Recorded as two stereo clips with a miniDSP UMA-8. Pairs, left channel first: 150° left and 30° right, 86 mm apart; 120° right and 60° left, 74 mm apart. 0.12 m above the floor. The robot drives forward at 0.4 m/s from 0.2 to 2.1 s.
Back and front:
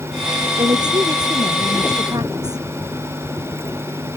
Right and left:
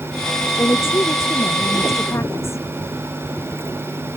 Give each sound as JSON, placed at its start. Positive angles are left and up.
{"t": 0.6, "sound": "a woman speaking", "azimuth_deg": -65}